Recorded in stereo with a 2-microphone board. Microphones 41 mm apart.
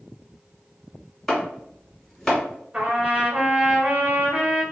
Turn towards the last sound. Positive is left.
turn(degrees=-30)  # may be behind; listen again after turning